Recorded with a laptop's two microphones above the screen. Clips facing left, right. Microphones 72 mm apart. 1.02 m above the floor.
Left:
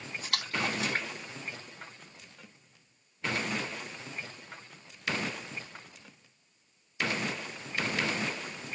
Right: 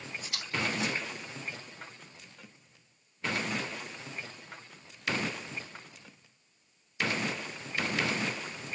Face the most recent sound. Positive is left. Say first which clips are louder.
# left 1 dB
turn(degrees=70)  # may be behind; listen again after turning